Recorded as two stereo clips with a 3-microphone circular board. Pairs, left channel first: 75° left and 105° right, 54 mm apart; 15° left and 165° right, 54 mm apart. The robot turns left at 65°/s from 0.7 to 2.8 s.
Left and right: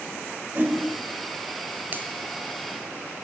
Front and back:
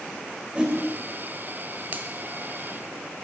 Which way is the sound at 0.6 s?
115° right.